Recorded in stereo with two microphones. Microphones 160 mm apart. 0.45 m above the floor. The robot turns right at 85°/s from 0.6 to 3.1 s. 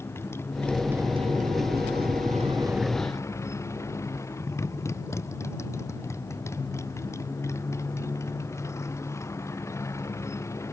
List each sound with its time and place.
0.0 s a motorcycle: 165° left; by 10.7 s 20° left